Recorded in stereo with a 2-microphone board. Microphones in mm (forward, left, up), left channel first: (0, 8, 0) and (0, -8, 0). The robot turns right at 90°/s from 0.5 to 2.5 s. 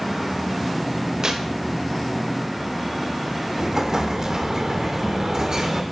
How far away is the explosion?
About 3 m.